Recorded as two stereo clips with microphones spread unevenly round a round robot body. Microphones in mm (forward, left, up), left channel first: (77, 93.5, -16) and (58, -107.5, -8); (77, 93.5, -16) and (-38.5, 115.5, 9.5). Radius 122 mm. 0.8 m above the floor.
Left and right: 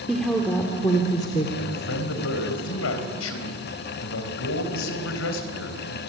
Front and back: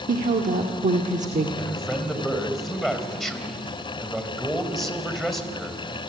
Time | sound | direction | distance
0.1 | a woman speaking | 175° left | 1.9 m
1.6 | a man speaking | 80° left | 4 m